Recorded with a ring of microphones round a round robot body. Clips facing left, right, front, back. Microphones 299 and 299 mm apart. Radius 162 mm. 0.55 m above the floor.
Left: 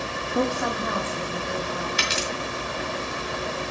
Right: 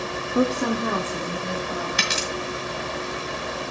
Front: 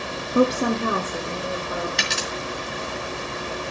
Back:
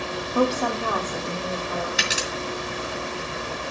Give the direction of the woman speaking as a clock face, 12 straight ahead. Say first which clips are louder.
Right 4 dB, front 4 dB; 1 o'clock.